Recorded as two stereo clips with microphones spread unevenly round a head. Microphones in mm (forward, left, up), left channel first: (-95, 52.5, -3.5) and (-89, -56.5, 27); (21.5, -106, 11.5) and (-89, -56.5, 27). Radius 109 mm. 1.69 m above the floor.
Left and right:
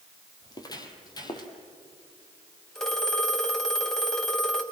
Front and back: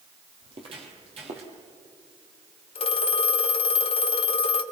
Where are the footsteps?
150° left, 2.5 m.